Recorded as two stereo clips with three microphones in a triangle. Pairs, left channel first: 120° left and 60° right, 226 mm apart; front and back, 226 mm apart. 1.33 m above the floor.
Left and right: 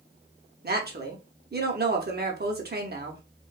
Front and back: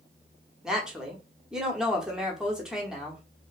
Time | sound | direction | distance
0.6 | a woman speaking | 95° right | 0.7 m